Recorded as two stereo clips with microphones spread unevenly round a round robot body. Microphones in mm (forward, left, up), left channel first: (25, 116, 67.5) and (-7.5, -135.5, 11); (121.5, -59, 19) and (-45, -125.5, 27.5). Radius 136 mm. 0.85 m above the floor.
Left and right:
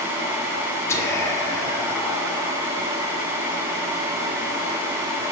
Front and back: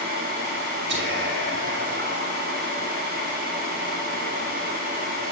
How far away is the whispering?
About 1.7 m.